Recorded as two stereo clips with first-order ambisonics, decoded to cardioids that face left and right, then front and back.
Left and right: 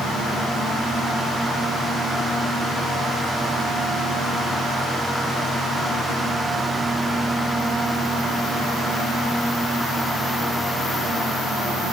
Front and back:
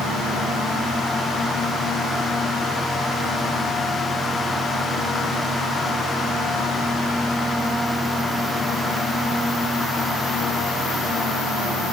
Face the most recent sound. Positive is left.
No sound to turn to.